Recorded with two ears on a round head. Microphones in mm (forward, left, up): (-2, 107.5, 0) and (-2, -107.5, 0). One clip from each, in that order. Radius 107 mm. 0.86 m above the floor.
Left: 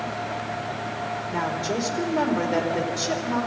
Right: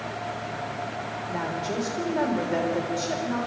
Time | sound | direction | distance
1.3 | a woman speaking | 20° left (ahead or behind) | 3 m